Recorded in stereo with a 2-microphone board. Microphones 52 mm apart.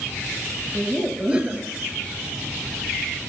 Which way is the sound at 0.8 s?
20° right (ahead or behind).